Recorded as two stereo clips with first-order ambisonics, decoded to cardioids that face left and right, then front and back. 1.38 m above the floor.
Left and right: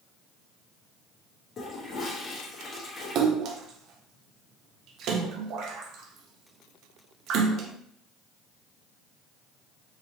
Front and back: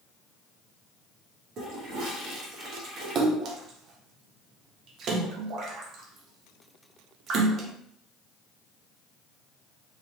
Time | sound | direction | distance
1.6 | a toilet flushing | 145° left | 0.9 m
3.1 | a splash | 130° right | 0.5 m